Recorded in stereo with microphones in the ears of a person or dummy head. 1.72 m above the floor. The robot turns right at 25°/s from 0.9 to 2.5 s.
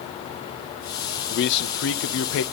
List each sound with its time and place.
1.3 s a man speaking: 65° left (ahead or behind), 1.3 m; by 2.4 s 80° left, 1.3 m